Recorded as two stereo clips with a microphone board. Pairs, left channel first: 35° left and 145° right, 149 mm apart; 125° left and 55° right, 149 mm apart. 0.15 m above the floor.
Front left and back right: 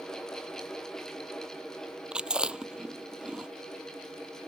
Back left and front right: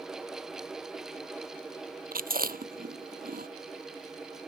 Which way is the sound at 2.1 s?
60° right.